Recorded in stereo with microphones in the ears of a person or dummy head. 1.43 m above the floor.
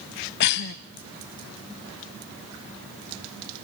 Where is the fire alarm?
No fire alarm in this recording.